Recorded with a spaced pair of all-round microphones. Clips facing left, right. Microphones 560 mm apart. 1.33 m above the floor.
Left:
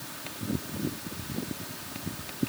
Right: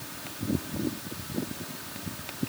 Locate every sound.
Only background noise.